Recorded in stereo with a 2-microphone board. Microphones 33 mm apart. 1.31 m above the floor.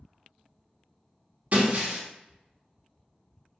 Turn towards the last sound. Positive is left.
turn(degrees=-50)  # may be behind; listen again after turning